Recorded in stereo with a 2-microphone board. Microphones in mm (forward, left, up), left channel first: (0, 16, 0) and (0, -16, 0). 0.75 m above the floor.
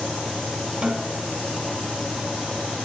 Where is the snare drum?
25° right (ahead or behind), 5 m.